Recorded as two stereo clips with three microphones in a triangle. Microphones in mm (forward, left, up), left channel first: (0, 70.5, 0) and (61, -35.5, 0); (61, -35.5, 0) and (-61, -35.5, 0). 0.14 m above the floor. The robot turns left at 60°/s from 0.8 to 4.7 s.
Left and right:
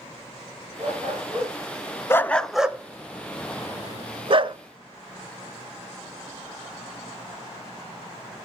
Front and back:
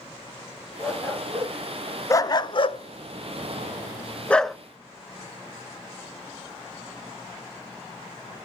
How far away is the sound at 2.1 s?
About 0.5 m.